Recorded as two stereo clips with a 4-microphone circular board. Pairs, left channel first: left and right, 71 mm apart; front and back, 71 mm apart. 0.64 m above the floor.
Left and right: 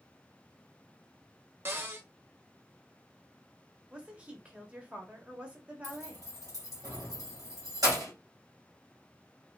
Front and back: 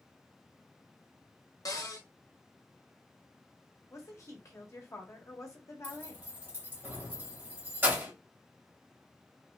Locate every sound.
1.6 s a cupboard door: 30° right, 0.7 m
3.9 s a woman speaking: 20° right, 0.9 m
5.8 s keys jangling: 115° right, 1.5 m